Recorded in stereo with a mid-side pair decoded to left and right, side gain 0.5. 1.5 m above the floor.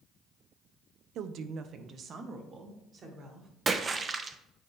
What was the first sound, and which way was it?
A woman speaking, 70° right.